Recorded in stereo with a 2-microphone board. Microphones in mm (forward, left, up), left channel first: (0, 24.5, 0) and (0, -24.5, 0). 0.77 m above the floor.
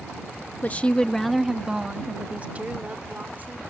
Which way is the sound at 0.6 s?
35° left (ahead or behind).